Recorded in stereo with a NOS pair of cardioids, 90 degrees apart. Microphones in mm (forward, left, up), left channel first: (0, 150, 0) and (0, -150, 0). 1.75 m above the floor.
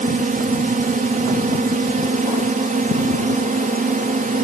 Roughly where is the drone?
Ahead right.